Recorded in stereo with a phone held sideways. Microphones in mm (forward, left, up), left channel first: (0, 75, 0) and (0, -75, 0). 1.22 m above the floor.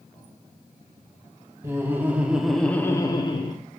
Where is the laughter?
15° right (ahead or behind), 1.1 m; by 3.6 s 35° left (ahead or behind), 0.7 m.